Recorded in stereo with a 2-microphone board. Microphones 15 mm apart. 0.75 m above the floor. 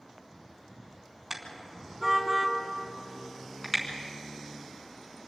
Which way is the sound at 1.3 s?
20° right (ahead or behind).